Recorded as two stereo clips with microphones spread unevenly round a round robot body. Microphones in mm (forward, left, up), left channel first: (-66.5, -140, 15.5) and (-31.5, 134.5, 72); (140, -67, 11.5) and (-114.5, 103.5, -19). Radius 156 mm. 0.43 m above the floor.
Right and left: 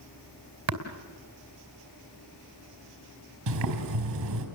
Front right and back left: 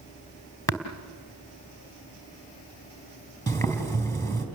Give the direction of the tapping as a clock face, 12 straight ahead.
10 o'clock.